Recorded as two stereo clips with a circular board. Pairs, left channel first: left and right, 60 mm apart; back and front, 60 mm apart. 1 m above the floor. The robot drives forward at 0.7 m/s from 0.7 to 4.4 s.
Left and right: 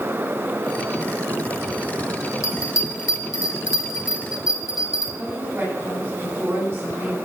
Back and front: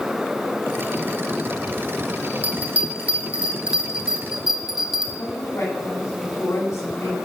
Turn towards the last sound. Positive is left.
turn(degrees=-155)